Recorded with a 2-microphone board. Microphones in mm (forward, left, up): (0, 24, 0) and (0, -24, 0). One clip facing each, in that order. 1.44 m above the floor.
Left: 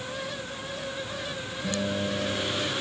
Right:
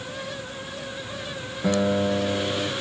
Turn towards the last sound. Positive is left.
turn(degrees=-70)  # may be behind; listen again after turning